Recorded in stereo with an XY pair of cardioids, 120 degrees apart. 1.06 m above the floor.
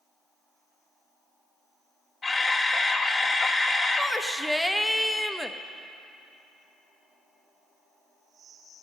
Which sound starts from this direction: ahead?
A shout, at 4.0 s.